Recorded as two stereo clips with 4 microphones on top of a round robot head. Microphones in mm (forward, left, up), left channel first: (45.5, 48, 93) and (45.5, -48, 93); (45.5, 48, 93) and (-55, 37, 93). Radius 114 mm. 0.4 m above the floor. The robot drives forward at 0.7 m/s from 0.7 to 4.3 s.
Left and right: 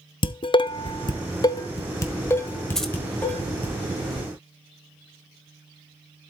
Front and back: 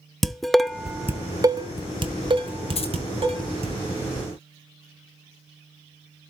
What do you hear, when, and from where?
0.2 s dishes clattering: 95° left, 0.7 m; by 3.8 s 165° left, 2.5 m
2.8 s keys jangling: 5° left, 1.3 m